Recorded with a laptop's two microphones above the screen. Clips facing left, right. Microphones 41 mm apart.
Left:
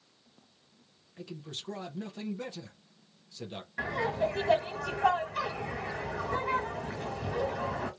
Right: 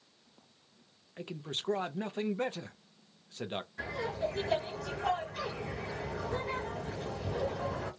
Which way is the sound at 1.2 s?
40° right (ahead or behind).